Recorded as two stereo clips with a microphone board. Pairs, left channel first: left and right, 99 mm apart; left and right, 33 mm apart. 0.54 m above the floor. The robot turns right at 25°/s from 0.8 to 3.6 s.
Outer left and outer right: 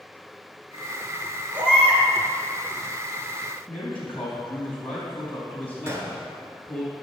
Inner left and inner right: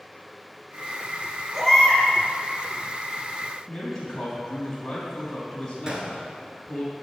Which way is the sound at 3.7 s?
15° left (ahead or behind).